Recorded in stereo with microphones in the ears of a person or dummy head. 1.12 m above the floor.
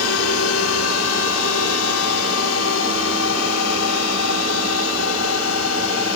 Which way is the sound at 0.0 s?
75° left (ahead or behind).